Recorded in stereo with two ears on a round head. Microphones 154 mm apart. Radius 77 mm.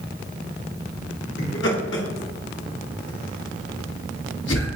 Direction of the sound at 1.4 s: 75° left (ahead or behind).